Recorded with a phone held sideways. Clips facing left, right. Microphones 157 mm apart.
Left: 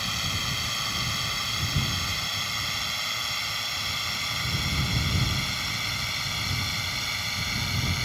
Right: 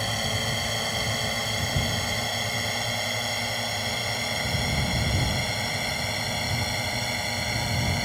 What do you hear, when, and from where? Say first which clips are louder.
0.0 s a drone: right 7 dB; 50° right (ahead or behind)